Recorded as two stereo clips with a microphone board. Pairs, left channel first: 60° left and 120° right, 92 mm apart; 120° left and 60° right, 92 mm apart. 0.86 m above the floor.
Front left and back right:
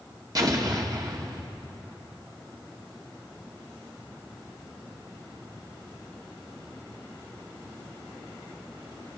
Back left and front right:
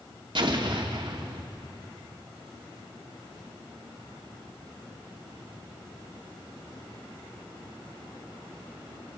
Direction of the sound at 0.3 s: 75° right.